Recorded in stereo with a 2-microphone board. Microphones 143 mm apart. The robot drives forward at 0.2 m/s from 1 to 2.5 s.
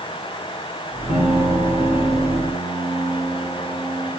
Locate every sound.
1.1 s a piano: 60° left (ahead or behind), 6 m; by 4.1 s 55° left (ahead or behind), 6.5 m